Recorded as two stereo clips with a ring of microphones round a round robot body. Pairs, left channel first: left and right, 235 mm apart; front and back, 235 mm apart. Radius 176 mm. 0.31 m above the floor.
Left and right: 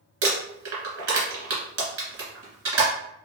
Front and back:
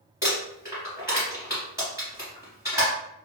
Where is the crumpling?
100° right, 1.7 m.